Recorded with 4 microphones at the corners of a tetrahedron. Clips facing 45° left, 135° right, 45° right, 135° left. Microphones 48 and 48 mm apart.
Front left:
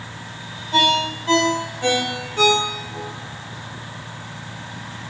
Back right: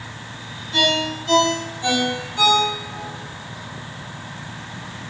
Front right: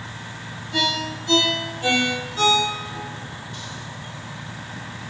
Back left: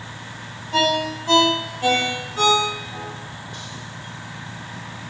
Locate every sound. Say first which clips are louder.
0.7 s a ringtone: front left 2 dB, back left 4 dB; 80° left, 1.6 m